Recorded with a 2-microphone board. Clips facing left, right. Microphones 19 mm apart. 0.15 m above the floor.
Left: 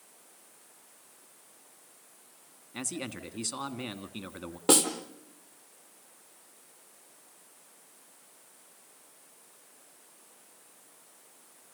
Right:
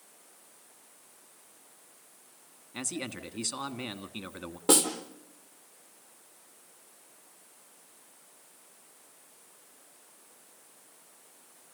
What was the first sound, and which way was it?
A man speaking, 15° right (ahead or behind).